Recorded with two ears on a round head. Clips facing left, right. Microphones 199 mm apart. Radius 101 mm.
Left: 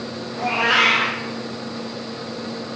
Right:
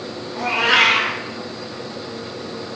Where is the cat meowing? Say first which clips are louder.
Even; 65° right (ahead or behind), 1.0 m.